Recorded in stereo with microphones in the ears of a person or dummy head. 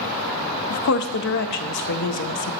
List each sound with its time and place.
0.7 s a woman speaking: 60° left (ahead or behind), 0.7 m